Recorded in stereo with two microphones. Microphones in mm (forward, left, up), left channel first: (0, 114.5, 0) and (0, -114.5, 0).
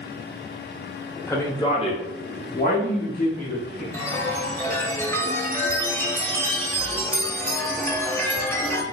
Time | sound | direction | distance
1.3 | a man speaking | 10° left (ahead or behind) | 1.0 m
3.9 | a chime | 10° left (ahead or behind) | 0.6 m